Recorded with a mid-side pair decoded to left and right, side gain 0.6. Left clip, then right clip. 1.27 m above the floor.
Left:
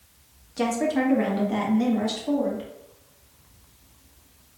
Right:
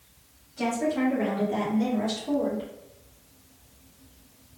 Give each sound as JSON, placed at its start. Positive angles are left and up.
{"t": 0.6, "sound": "a woman speaking", "azimuth_deg": 60, "distance_m": 1.4}